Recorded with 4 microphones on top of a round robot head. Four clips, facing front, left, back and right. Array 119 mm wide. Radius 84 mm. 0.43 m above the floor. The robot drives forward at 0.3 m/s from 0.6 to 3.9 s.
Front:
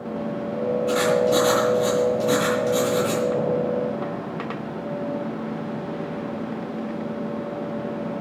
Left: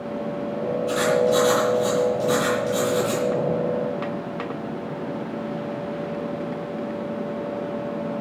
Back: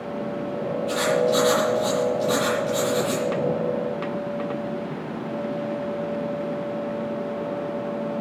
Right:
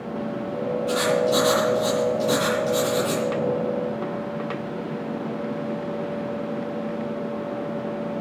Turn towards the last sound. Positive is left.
turn(degrees=-15)